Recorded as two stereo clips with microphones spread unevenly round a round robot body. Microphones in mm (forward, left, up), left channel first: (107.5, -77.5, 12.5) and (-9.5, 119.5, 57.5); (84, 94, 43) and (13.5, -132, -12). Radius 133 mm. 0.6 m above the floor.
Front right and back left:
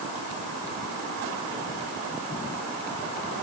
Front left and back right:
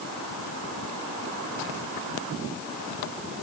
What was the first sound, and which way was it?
Only background noise.